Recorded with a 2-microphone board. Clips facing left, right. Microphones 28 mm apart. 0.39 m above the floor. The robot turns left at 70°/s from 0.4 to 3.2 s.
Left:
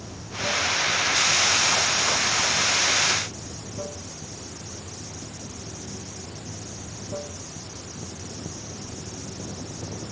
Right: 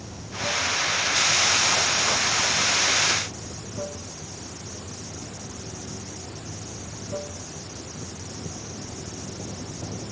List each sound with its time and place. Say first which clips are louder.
0.0 s running water: left 1 dB; straight behind; by 10.1 s 20° right